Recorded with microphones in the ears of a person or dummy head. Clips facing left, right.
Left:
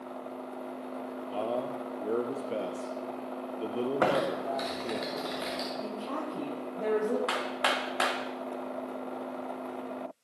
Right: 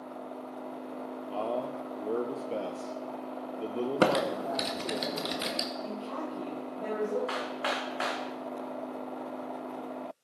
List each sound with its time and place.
1.3 s a man speaking: centre (ahead or behind), 0.7 m
4.0 s typing on a keyboard: 45° right (ahead or behind), 1.6 m
5.8 s a woman speaking: 70° left (ahead or behind), 6.5 m
7.3 s hammering: 60° left (ahead or behind), 2.5 m